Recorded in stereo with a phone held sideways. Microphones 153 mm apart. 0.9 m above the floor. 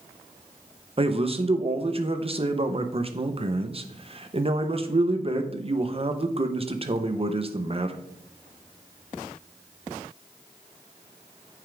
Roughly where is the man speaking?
Right.